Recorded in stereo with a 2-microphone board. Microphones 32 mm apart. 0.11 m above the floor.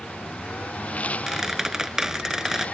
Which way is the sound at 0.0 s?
50° left (ahead or behind).